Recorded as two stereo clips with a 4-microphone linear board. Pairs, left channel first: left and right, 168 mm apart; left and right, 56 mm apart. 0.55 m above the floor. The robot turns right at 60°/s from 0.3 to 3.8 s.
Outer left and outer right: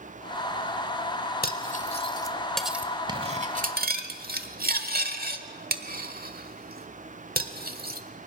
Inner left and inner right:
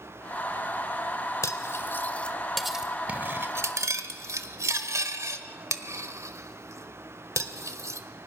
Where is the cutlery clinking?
65° left (ahead or behind), 1.3 m; by 8.0 s 65° right (ahead or behind), 1.3 m.